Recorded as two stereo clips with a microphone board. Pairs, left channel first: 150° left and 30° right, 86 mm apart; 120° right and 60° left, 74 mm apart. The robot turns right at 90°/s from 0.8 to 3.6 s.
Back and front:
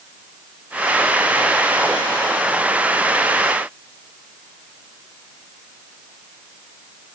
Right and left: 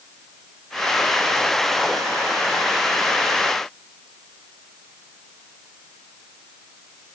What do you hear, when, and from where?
Only background noise.